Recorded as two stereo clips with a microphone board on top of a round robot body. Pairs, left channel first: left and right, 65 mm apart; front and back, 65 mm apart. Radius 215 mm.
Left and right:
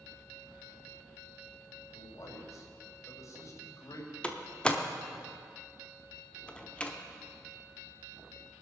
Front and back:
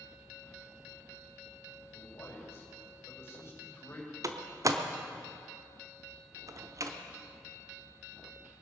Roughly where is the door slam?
Behind.